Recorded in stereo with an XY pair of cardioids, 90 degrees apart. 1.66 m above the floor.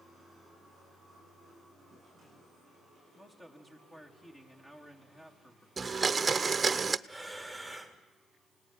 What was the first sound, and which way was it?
A man speaking, 25° left.